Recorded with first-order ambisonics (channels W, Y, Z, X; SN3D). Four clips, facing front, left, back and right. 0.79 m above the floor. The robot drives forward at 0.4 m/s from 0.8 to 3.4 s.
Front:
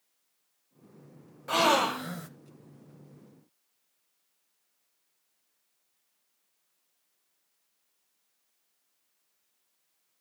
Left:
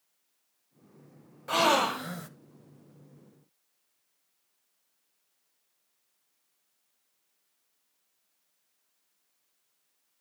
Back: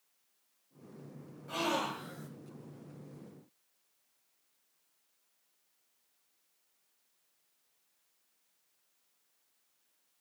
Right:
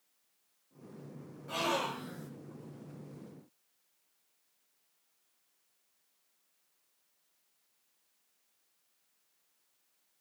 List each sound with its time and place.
1.5 s a gasp: 40° left, 1.3 m; by 2.3 s 55° left, 1.1 m